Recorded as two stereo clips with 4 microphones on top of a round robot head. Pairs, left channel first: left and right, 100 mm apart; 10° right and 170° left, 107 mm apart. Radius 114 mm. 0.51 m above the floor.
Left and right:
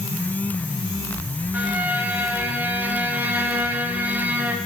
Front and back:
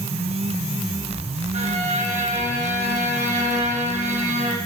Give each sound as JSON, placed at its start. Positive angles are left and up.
{"t": 1.5, "sound": "a violin", "azimuth_deg": -165, "distance_m": 3.0}